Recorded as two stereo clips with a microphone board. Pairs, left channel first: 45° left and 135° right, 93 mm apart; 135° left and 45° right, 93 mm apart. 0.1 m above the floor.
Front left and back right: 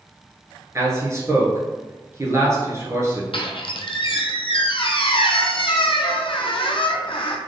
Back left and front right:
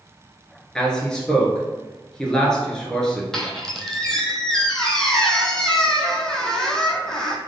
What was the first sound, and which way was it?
A man speaking, 150° right.